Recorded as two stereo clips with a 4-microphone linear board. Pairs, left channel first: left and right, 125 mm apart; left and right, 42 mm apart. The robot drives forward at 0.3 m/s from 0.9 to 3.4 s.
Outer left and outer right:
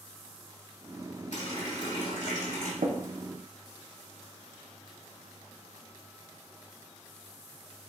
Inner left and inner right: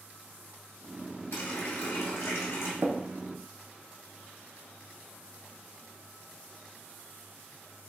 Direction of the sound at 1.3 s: 65° left (ahead or behind).